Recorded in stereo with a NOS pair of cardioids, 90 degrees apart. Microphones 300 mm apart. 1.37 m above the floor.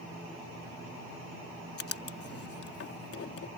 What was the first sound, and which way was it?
Writing, 50° left.